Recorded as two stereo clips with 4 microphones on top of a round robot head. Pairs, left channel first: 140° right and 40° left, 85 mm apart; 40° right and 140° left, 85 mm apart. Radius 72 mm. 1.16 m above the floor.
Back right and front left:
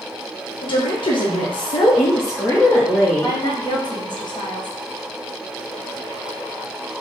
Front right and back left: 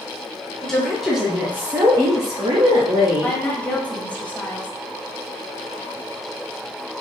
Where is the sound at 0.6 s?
125° right, 1.1 m; by 3.4 s 140° left, 1.0 m.